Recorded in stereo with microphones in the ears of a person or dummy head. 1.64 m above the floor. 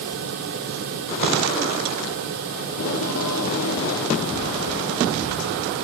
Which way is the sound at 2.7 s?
85° left.